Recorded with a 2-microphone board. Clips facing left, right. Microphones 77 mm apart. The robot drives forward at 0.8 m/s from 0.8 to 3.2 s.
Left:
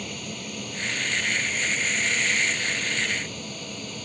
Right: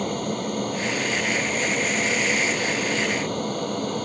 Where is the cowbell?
No cowbell in this recording.